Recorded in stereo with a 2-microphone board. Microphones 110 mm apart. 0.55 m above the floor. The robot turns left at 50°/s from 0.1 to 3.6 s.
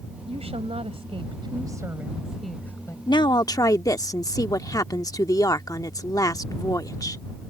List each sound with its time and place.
0.3 s a woman speaking: 75° right; by 3.0 s 150° left
3.1 s a woman speaking: 45° left (ahead or behind); by 7.2 s 35° left (ahead or behind)